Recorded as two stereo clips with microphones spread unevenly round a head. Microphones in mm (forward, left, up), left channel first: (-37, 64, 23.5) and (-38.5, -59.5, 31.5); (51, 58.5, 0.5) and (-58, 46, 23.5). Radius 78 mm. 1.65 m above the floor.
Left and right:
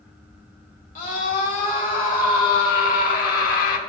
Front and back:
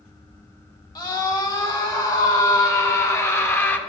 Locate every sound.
0.9 s a scream: 55° left, 2.5 m; by 3.8 s 80° left, 1.3 m